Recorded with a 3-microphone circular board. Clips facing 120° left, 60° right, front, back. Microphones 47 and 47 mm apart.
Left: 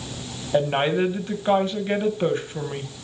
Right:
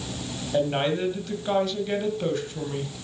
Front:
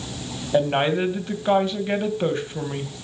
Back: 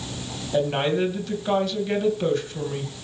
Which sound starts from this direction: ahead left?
A woman speaking, at 0.5 s.